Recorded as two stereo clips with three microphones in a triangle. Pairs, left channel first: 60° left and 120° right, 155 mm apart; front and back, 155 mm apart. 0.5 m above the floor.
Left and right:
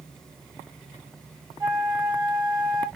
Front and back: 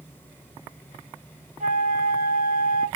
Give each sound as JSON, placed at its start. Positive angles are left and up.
{"t": 1.6, "sound": "a flute", "azimuth_deg": 180, "distance_m": 1.9}